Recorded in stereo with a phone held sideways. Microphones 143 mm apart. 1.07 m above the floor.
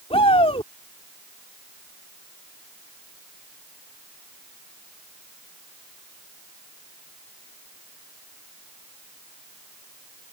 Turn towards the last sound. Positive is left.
turn(degrees=40)  # may be behind; listen again after turning